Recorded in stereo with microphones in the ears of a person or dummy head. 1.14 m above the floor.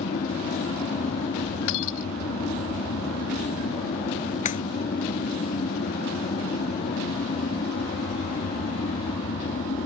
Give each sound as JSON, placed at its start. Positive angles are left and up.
{"t": 0.0, "sound": "an aircraft", "side_deg": 35}
{"t": 1.7, "sound": "breaking glass", "side_deg": 75}
{"t": 4.5, "sound": "a clap", "side_deg": 40}